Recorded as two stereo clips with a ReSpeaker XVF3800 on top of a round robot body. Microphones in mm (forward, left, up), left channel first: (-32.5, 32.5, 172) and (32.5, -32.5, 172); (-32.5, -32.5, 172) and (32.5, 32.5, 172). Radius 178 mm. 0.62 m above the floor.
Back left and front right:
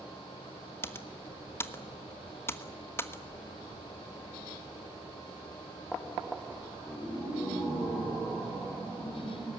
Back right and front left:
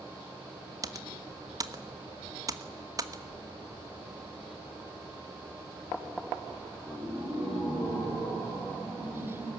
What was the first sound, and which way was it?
Typing on a keyboard, 80° left.